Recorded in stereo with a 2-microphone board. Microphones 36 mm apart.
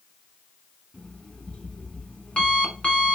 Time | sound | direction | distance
0.9 | an alarm clock | 40° left (ahead or behind) | 1.0 m